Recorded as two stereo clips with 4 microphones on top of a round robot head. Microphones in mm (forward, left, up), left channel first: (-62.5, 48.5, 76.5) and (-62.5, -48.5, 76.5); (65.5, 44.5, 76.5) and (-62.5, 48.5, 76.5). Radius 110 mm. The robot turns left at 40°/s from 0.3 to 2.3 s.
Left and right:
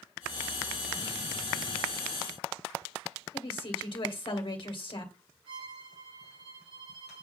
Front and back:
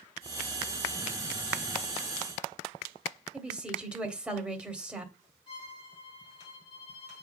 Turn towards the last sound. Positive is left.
turn(degrees=-60)